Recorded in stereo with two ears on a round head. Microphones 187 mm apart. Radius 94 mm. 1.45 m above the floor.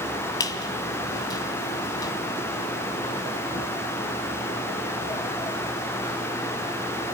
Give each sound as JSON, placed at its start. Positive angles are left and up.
{"t": 0.4, "sound": "a squeak", "side_deg": 20, "distance_m": 1.7}